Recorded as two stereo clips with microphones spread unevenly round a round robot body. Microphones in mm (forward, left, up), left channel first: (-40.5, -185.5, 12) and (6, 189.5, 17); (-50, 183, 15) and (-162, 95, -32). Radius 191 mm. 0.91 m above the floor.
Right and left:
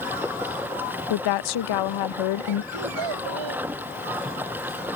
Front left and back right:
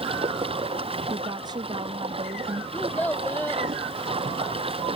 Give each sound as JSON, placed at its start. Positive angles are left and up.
{"t": 0.0, "sound": "running water", "azimuth_deg": 170}
{"t": 1.1, "sound": "a woman speaking", "azimuth_deg": -90}
{"t": 2.7, "sound": "a child speaking", "azimuth_deg": 115}